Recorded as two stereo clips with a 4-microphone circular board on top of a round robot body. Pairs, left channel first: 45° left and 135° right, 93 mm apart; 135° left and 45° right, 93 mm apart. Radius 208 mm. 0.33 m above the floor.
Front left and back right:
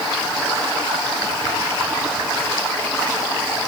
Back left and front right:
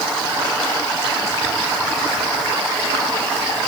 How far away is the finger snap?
No finger snap in this recording.